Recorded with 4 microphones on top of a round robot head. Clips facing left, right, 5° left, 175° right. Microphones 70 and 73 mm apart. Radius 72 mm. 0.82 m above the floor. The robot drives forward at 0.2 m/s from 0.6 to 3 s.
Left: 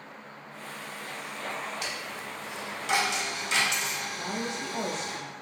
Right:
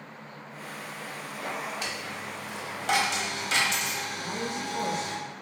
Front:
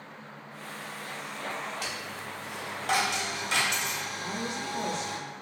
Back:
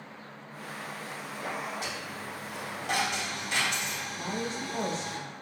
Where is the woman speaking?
145° left, 1.2 m.